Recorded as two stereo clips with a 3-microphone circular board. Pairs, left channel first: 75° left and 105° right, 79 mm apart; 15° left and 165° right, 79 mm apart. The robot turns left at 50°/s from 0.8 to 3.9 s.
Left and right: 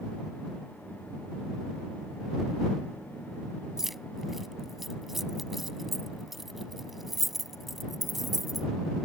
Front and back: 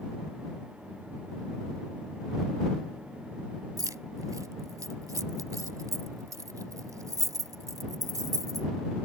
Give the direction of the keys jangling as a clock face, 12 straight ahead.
6 o'clock.